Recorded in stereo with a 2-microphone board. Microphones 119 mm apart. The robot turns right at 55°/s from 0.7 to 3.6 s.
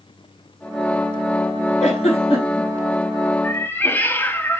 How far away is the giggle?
About 6.5 m.